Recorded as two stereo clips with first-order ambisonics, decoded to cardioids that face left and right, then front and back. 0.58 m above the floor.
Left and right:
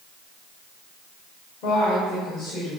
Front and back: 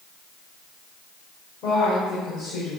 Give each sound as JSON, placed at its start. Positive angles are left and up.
{"t": 1.6, "sound": "a woman speaking", "azimuth_deg": 45, "distance_m": 2.0}